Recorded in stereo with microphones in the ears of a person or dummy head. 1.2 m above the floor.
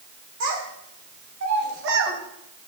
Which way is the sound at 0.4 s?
80° right.